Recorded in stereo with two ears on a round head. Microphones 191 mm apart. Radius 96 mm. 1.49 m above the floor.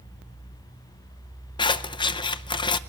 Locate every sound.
1.6 s scissors: 20° left (ahead or behind), 0.6 m